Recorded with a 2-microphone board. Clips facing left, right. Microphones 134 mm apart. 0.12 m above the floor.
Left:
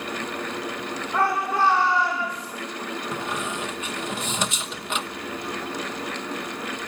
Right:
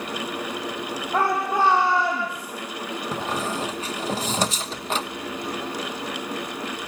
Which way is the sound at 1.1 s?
40° right (ahead or behind).